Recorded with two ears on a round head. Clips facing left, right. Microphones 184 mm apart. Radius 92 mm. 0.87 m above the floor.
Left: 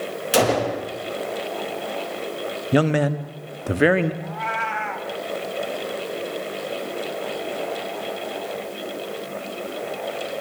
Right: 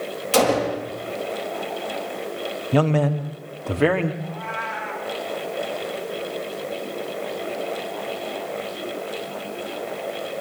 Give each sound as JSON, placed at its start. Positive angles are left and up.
{"t": 0.3, "sound": "a gunshot", "side_deg": 15, "distance_m": 4.0}
{"t": 2.7, "sound": "a man speaking", "side_deg": 15, "distance_m": 1.4}
{"t": 4.2, "sound": "a cat meowing", "side_deg": 85, "distance_m": 2.5}